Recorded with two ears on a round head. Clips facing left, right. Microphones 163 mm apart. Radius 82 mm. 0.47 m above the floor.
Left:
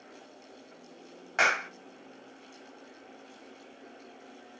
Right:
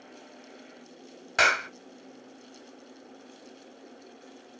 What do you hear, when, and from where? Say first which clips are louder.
1.4 s a clap: right 2 dB; 45° right (ahead or behind), 1.1 m